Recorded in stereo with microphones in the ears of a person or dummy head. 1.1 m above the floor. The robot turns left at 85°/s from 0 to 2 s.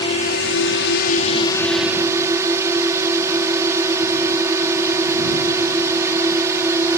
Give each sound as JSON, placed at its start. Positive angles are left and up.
{"t": 0.0, "sound": "a drone", "azimuth_deg": 150}